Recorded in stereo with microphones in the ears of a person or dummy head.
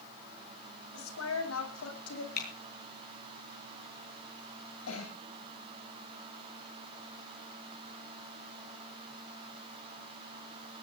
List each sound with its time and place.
0.9 s a woman speaking: 85° left, 8.5 m; by 2.3 s 90° left, 9 m
2.4 s typing on a keyboard: 50° left (ahead or behind), 9 m
4.9 s a cough: 90° left, 7 m